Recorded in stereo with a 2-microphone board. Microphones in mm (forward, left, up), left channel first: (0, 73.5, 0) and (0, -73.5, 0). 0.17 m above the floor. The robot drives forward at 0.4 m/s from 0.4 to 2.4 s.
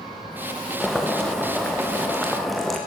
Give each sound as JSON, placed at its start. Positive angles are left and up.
{"t": 0.8, "sound": "boiling", "side_deg": 0, "distance_m": 2.5}